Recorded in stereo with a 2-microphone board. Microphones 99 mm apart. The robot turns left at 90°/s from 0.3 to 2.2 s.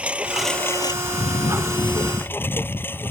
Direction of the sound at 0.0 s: 170° right.